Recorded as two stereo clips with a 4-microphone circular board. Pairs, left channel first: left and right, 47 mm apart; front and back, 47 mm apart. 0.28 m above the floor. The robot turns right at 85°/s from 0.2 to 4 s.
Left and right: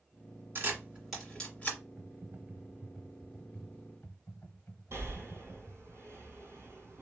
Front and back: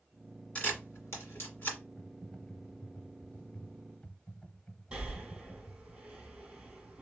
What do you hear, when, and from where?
0.6 s a camera shutter: 60° right, 1.8 m; by 1.8 s 45° left, 1.8 m
2.0 s typing on a keyboard: 105° right, 1.0 m; by 5.9 s 70° left, 1.0 m
4.9 s breathing: 110° right, 2 m